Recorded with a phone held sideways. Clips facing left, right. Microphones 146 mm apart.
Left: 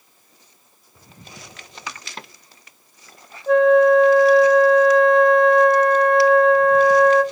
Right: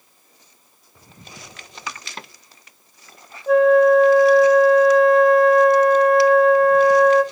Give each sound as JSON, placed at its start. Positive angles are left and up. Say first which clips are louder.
{"t": 3.5, "sound": "a flute", "louder": "even", "side_deg": -5, "distance_m": 0.7}